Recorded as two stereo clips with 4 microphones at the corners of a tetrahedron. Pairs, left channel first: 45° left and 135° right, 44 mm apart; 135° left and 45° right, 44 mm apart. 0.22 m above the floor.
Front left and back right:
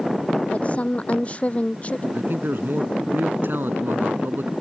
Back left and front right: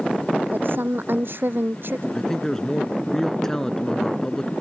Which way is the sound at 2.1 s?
150° right.